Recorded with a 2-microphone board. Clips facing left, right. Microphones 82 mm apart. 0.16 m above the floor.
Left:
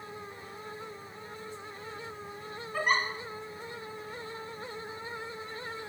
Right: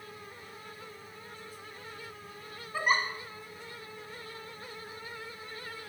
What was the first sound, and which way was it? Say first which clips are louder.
A giggle: even; 5° right (ahead or behind).